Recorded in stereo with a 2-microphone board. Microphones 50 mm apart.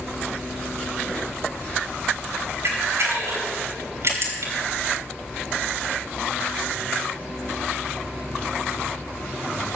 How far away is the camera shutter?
About 3 m.